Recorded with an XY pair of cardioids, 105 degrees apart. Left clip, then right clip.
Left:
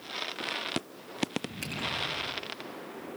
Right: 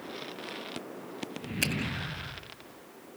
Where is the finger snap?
65° right, 4.5 m.